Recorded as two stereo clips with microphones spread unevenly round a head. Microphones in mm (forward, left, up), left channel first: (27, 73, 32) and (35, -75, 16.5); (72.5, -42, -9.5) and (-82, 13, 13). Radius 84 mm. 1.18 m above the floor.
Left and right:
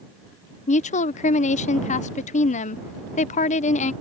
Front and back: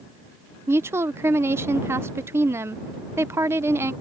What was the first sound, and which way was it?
A woman speaking, 80° left.